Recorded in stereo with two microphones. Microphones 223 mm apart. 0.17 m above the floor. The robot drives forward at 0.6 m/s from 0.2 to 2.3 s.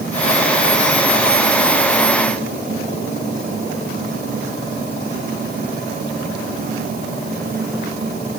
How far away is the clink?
I don't hear a clink.